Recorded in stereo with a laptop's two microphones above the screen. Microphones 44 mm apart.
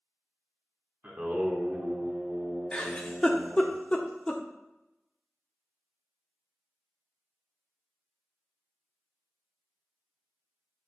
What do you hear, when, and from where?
1.0 s singing: 35° right (ahead or behind), 1.2 m
2.7 s a giggle: 20° left (ahead or behind), 0.7 m